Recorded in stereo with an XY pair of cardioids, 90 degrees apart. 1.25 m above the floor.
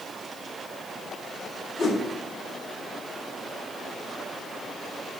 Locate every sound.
1.8 s a whoosh: 50° left, 1.7 m